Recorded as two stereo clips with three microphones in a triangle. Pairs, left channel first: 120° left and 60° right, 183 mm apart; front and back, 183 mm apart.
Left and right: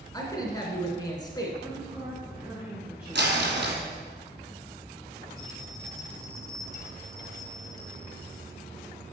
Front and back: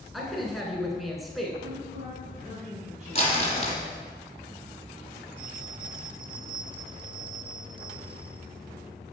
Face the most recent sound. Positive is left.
turn(degrees=-125)